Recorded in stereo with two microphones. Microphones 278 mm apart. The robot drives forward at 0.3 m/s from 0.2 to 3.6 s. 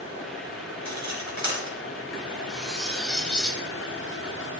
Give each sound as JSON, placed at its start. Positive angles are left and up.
{"t": 0.8, "sound": "cutlery clinking", "side_deg": -75, "distance_m": 3.0}
{"t": 2.5, "sound": "cutlery clinking", "side_deg": 5, "distance_m": 1.5}